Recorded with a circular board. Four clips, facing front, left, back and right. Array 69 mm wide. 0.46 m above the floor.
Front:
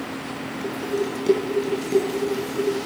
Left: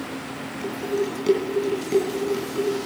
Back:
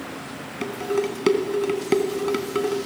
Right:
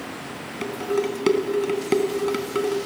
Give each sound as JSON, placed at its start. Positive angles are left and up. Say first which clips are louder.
{"t": 0.6, "sound": "dishes clattering", "louder": "right 2 dB, back 2 dB", "azimuth_deg": -140, "distance_m": 3.0}